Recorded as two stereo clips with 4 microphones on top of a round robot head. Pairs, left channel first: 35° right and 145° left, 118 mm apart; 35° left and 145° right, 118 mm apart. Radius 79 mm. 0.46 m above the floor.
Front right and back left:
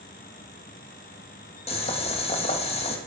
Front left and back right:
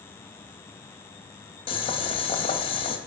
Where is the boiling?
5° right, 2 m.